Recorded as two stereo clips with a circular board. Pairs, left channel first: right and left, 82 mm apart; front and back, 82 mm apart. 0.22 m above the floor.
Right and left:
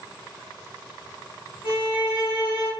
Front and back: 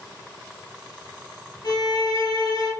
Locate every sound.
1.6 s a violin: 20° left, 1.5 m